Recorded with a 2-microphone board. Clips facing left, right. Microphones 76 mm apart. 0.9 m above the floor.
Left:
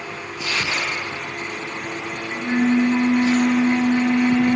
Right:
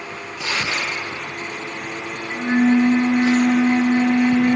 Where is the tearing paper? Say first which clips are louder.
Right 1 dB; 70° right (ahead or behind), 6.5 m.